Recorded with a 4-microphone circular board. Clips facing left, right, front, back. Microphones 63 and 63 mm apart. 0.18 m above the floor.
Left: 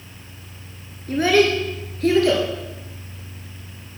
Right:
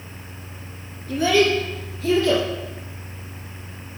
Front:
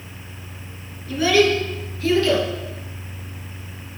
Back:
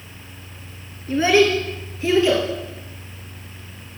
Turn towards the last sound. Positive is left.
turn(degrees=110)